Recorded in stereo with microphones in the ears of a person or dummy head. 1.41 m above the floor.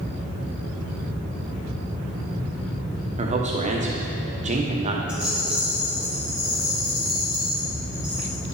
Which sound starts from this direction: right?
A man speaking, at 3.2 s.